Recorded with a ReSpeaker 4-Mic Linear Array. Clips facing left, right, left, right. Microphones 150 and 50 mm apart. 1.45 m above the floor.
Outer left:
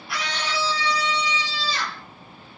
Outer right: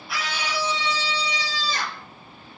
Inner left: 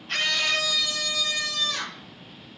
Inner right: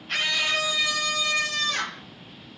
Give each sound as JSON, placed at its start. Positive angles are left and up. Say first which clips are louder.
{"t": 0.1, "sound": "a scream", "louder": "even, even", "side_deg": 0, "distance_m": 1.0}